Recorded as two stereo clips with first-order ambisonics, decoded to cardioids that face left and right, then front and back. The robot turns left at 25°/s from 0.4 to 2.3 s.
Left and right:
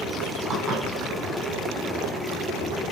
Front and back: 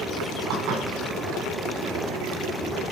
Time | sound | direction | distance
0.5 | dishes clattering | 150° right | 4.5 m